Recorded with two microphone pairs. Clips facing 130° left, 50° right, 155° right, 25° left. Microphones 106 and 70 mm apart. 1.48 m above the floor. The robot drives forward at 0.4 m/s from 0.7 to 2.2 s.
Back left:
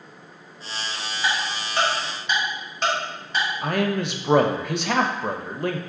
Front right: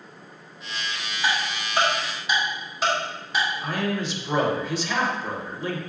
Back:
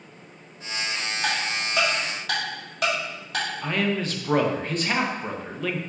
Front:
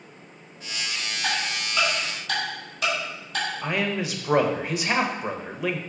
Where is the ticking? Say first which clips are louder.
Even, back 1 dB; 125° right, 1.9 m; by 3.5 s 135° right, 2 m.